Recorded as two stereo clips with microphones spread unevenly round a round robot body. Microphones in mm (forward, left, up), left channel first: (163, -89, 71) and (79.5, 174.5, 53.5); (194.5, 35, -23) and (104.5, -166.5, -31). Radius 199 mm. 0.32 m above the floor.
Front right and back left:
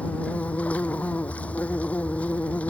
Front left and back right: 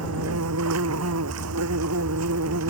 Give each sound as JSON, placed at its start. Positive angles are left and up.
{"t": 0.0, "sound": "an insect", "azimuth_deg": -160}